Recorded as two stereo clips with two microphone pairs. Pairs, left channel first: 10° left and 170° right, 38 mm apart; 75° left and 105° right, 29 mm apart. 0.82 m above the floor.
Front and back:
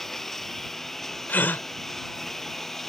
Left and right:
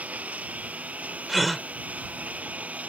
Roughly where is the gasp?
Ahead.